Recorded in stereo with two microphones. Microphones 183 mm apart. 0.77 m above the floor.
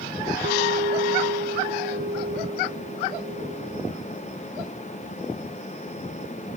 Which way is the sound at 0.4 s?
75° right (ahead or behind).